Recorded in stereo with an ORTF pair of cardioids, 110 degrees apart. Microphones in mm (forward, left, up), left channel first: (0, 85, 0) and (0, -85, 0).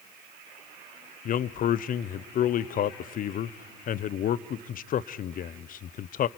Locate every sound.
1.2 s a man speaking: 50° left, 0.7 m